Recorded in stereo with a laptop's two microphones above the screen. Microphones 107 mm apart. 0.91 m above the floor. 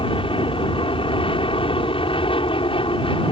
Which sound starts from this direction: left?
An aircraft, at 0.0 s.